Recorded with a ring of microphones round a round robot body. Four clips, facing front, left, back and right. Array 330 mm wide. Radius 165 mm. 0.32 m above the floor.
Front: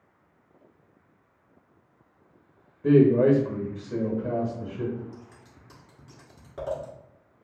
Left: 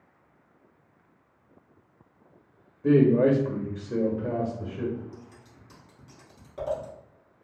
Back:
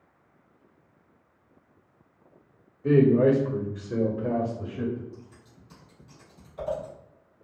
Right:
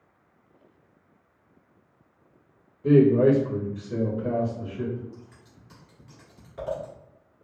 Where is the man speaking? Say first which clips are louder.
Right 2 dB, front 1 dB; 20° left, 1.0 m; by 5.0 s 170° left, 1.5 m.